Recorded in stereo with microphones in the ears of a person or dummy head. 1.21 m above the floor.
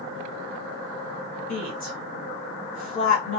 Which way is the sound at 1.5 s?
35° left (ahead or behind).